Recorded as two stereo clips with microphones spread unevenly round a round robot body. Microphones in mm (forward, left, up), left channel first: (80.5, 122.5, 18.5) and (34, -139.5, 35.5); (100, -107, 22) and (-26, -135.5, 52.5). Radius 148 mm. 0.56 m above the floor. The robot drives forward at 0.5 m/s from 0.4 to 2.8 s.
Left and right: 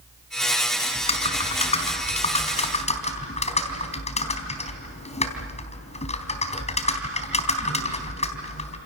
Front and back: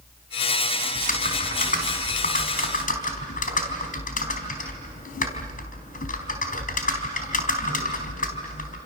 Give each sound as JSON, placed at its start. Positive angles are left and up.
{"t": 0.9, "sound": "typing on a keyboard", "azimuth_deg": 10, "distance_m": 4.5}